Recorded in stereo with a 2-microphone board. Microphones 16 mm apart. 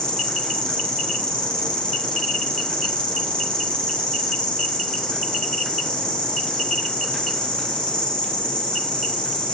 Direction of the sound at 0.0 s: 75° left (ahead or behind).